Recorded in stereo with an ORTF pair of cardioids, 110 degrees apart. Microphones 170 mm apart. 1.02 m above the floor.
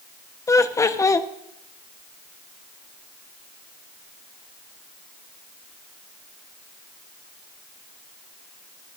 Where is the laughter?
20° left, 1.0 m.